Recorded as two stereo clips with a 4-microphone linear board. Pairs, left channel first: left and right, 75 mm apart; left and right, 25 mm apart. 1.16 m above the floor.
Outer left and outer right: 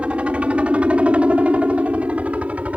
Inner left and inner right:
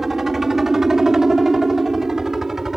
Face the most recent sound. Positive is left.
turn(degrees=-20)  # may be behind; listen again after turning